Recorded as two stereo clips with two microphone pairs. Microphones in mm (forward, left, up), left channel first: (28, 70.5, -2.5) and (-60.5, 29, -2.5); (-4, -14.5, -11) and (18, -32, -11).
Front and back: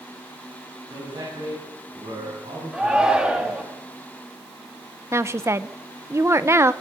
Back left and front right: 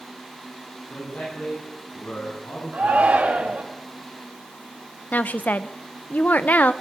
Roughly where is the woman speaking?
Behind left.